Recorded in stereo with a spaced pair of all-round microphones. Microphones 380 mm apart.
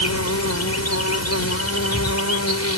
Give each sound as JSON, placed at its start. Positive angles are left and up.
{"t": 0.0, "sound": "an insect", "side_deg": 40}